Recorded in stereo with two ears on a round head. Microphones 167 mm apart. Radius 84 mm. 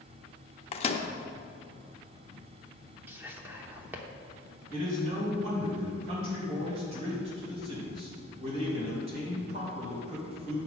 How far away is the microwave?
About 0.6 m.